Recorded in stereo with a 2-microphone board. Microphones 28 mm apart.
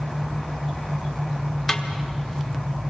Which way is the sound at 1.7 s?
15° left (ahead or behind).